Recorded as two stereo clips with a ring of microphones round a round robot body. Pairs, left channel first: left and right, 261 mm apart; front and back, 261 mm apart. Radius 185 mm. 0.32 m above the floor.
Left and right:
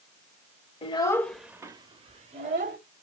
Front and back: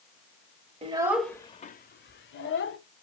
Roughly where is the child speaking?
Behind left.